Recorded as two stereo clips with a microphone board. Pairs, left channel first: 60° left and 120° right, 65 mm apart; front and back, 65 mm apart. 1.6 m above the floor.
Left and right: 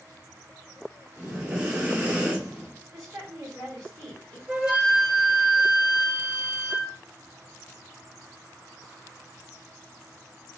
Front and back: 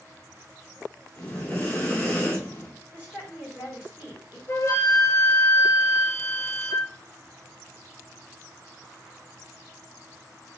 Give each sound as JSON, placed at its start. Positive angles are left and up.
{"t": 1.2, "sound": "breathing", "azimuth_deg": -60, "distance_m": 1.9}
{"t": 2.9, "sound": "a woman speaking", "azimuth_deg": -115, "distance_m": 2.0}
{"t": 4.5, "sound": "a flute", "azimuth_deg": -50, "distance_m": 0.8}